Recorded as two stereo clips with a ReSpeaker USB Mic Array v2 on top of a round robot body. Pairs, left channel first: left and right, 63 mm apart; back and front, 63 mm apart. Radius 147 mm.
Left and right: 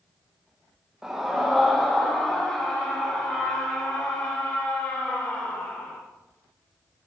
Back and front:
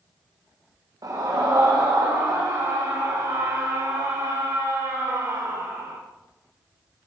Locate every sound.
1.0 s a scream: 10° right, 1.4 m; by 6.0 s 30° left, 4 m